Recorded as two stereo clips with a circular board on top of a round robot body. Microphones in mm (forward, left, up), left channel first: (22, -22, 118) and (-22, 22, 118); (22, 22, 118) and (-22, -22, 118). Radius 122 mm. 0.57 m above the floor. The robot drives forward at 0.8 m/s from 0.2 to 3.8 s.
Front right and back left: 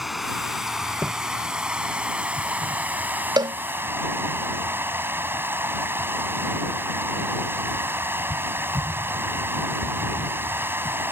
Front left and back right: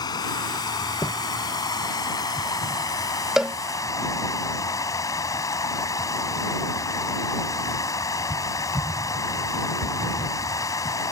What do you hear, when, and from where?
0.0 s running water: 50° left; by 11.1 s 80° left
1.0 s footsteps: 70° left; by 1.1 s 85° left
3.4 s a cowbell: 140° left; by 3.5 s 145° left